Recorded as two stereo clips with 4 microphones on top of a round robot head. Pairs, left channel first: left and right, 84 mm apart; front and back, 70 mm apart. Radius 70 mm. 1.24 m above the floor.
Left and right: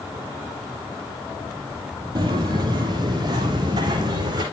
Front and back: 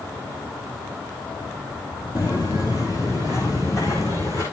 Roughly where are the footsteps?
Ahead right.